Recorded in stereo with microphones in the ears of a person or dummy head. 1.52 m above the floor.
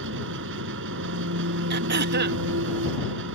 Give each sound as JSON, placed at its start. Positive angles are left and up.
{"t": 0.0, "sound": "an engine running", "side_deg": -65}
{"t": 1.7, "sound": "throat clearing", "side_deg": -55}